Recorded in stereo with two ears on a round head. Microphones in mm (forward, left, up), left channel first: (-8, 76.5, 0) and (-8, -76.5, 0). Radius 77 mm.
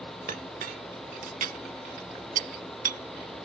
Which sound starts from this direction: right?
A clink, at 0.3 s.